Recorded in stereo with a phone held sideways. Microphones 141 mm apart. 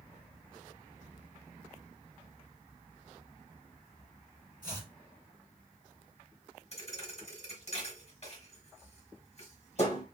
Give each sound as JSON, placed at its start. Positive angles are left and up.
{"t": 4.6, "sound": "chopping", "side_deg": 70, "distance_m": 2.5}
{"t": 6.7, "sound": "a thud", "side_deg": 50, "distance_m": 1.2}